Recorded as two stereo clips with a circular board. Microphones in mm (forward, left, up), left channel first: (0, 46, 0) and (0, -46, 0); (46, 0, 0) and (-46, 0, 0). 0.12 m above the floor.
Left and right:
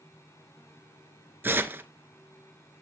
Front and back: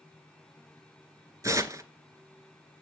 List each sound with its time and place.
1.4 s tearing paper: 145° right, 0.8 m